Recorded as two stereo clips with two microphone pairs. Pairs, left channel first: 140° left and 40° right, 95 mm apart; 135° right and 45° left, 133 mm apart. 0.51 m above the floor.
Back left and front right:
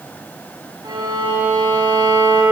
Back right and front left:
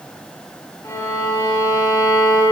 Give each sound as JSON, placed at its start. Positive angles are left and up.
{"t": 0.8, "sound": "a violin", "azimuth_deg": -70, "distance_m": 5.0}